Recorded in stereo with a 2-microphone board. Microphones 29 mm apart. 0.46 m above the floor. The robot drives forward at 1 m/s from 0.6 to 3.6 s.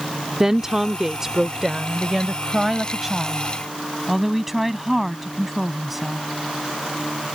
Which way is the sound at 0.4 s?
20° right (ahead or behind).